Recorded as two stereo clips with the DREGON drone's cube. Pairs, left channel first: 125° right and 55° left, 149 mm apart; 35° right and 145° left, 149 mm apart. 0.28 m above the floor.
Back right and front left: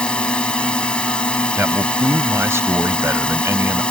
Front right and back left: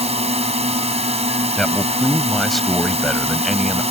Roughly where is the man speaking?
Ahead left.